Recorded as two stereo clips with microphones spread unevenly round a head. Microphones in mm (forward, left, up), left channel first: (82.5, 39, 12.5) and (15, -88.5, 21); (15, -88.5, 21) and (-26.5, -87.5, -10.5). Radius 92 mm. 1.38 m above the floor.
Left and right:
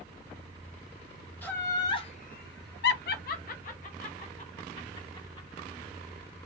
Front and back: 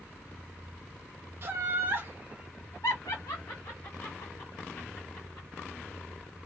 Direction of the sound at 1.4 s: 145° left.